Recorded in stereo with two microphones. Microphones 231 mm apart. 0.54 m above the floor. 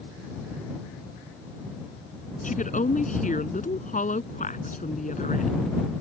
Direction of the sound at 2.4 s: 35° left (ahead or behind).